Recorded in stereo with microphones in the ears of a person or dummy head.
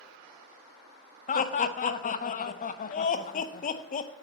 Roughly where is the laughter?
Left.